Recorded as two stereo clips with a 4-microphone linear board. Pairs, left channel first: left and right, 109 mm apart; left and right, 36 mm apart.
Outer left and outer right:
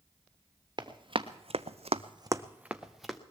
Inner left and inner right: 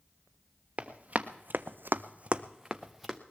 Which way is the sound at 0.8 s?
40° right (ahead or behind).